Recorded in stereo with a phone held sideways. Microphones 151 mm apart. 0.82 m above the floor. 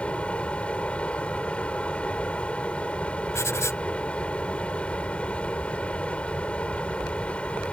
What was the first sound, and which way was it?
A fan, 10° left (ahead or behind).